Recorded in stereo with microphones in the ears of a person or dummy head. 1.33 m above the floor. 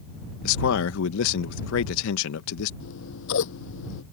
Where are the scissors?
80° left.